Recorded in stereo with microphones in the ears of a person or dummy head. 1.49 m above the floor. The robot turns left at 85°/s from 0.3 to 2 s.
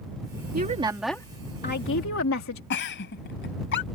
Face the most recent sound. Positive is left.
turn(degrees=65)  # may be behind; listen again after turning